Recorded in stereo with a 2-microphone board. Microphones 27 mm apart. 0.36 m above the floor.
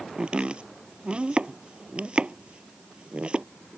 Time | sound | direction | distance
0.2 | chopping | 40° right (ahead or behind) | ?